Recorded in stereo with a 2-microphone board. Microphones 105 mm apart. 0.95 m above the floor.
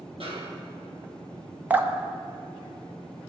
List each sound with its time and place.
0.2 s a snare drum: 65° right (ahead or behind), 2 m
1.7 s dripping: 20° right (ahead or behind), 0.6 m